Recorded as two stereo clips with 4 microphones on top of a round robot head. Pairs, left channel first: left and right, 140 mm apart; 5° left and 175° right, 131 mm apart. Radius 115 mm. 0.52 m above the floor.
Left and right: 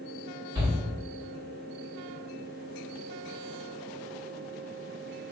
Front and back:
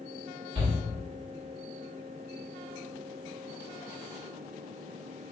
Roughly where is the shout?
Behind right.